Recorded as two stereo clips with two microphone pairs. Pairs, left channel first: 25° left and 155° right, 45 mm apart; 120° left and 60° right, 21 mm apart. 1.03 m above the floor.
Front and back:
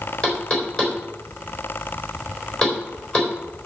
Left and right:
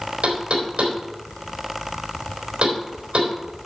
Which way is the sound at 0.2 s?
45° right.